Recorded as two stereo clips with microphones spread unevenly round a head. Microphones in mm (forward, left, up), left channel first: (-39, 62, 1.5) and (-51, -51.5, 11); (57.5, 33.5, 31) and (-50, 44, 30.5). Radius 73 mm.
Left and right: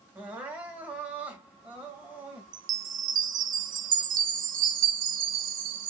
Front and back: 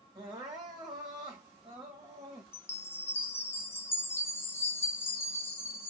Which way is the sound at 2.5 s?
80° right.